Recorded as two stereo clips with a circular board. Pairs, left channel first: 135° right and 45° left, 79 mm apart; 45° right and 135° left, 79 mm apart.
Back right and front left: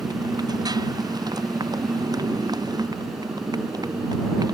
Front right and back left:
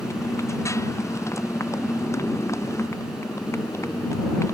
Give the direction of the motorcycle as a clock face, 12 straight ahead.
12 o'clock.